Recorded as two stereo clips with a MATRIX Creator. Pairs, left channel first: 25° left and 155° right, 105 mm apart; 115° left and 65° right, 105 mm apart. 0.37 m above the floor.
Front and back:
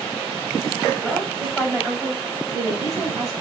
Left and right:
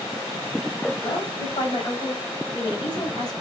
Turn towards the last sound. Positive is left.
turn(degrees=155)